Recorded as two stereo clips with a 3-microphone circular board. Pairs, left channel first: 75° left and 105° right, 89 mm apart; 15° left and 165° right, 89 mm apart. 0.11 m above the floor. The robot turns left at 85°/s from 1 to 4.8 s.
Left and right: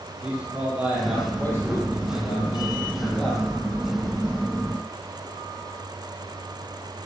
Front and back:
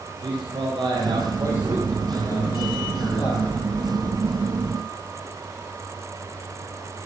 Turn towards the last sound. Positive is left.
turn(degrees=-140)